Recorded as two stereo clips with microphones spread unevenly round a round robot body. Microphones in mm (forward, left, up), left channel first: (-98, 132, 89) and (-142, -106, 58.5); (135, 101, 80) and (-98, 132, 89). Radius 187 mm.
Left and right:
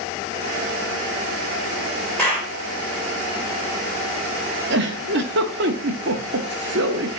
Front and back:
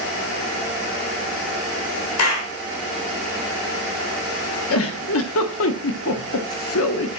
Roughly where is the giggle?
Ahead right.